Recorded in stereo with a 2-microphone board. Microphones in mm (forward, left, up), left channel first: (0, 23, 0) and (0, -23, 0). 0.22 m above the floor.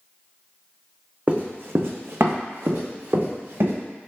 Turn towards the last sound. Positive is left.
turn(degrees=-60)  # may be behind; listen again after turning